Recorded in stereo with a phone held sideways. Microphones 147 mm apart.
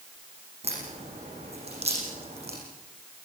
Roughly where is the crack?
Right.